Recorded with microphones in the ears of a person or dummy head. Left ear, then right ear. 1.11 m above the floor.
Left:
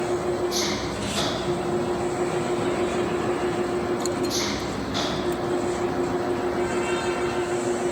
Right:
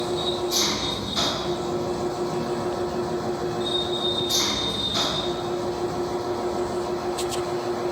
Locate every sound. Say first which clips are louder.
0.0 s an engine running: left 1 dB; 15° right (ahead or behind)